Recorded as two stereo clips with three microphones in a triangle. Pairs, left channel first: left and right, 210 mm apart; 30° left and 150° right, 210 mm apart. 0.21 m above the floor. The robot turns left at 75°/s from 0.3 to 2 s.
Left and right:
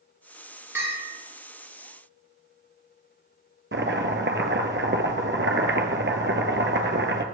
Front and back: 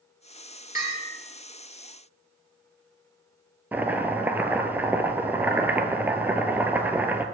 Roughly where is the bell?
Ahead.